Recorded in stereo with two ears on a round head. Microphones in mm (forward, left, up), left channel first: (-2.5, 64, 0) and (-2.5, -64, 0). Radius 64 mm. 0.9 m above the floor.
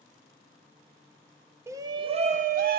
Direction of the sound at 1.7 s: 15° right (ahead or behind).